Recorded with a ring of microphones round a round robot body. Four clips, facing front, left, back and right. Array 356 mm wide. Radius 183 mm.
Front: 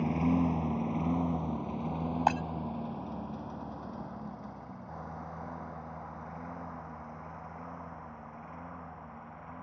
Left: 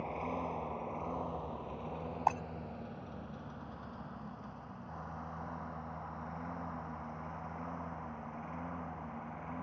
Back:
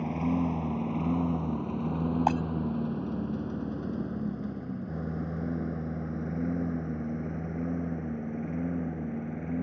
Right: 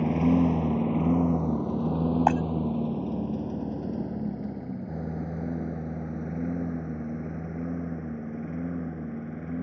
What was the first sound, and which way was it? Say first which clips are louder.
A lawn mower: right 16 dB, even; 85° right.